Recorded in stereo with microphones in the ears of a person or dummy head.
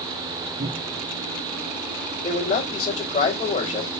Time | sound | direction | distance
0.6 | a cupboard door | 55° right (ahead or behind) | 1.5 m
2.2 | a man speaking | 40° left (ahead or behind) | 3.5 m